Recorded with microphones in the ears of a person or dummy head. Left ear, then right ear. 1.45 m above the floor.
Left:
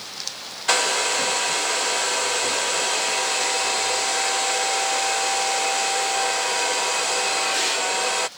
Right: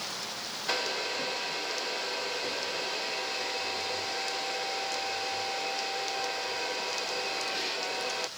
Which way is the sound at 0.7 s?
50° left (ahead or behind).